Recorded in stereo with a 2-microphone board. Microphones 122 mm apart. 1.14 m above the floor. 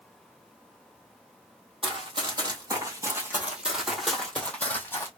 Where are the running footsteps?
45° right (ahead or behind), 1.6 m; by 5.1 s 20° left (ahead or behind), 1.7 m.